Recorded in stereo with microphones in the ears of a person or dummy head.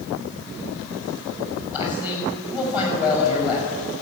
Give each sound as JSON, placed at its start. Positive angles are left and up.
{"t": 1.7, "sound": "a man speaking", "side_deg": 25, "distance_m": 6.5}